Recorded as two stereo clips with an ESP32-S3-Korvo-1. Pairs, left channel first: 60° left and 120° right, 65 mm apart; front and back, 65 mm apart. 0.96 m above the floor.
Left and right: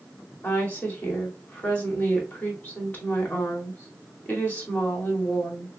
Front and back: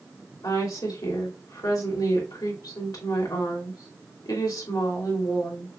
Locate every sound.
0.4 s a woman speaking: 5° right, 2.5 m